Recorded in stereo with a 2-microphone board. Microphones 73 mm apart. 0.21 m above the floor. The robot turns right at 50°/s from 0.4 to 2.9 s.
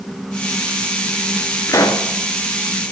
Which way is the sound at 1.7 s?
50° left (ahead or behind).